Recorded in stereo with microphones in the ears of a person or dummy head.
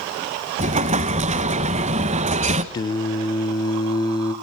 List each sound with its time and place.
0.6 s an explosion: 35° right (ahead or behind), 0.8 m
2.7 s singing: 25° left (ahead or behind), 0.9 m